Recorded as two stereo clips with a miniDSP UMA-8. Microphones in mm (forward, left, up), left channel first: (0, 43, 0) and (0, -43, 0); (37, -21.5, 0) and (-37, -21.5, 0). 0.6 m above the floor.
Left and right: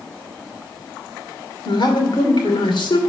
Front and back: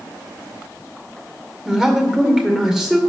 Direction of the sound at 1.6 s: 100° left.